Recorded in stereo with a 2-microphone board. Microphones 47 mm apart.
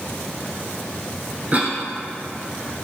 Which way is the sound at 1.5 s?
35° right (ahead or behind).